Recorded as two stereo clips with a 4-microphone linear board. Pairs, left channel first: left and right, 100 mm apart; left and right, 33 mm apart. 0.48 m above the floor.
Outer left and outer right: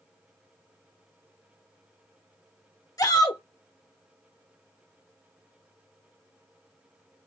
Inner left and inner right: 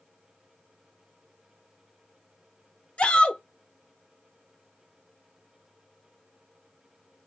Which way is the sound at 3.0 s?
40° left (ahead or behind).